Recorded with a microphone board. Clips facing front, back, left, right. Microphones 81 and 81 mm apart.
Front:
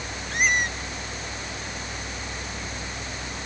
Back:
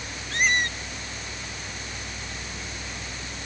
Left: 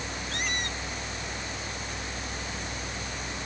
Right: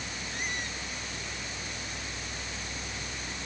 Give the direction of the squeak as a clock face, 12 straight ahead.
9 o'clock.